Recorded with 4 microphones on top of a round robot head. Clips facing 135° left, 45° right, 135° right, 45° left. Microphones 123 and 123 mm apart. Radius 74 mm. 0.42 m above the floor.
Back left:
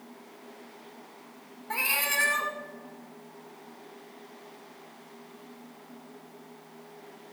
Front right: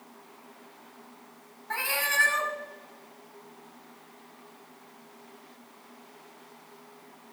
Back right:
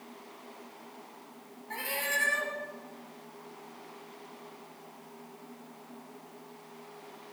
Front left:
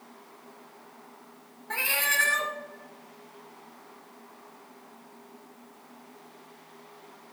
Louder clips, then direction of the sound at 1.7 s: Front right 1 dB, front left 3 dB; 65° left.